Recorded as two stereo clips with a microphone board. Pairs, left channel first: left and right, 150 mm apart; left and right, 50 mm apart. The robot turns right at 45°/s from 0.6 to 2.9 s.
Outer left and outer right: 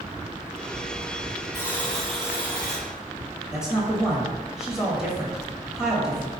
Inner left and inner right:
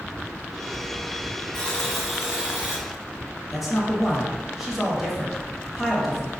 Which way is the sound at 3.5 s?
5° right (ahead or behind).